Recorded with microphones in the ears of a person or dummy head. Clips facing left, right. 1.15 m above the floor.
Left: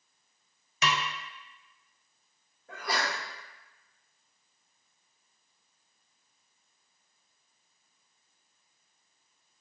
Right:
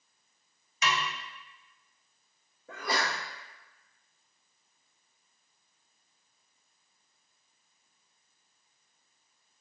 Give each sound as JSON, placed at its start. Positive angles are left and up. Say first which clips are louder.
{"t": 0.8, "sound": "a snare drum", "louder": "left 1 dB", "side_deg": 60, "distance_m": 0.6}
{"t": 2.7, "sound": "a sneeze", "louder": "right 1 dB", "side_deg": -70, "distance_m": 0.9}